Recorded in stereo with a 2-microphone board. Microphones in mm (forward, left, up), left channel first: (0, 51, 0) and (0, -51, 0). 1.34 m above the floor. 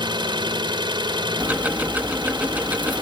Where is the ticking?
15° right (ahead or behind).